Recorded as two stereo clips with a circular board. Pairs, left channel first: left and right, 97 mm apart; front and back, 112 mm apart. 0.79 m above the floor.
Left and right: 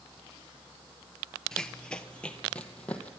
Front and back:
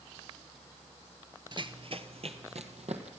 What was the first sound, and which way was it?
Running footsteps, 170° left.